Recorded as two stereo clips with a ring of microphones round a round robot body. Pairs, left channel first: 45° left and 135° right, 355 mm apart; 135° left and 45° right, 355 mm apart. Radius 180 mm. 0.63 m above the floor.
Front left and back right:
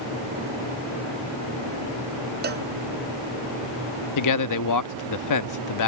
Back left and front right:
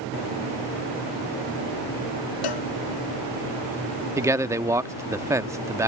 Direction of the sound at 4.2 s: 35° left.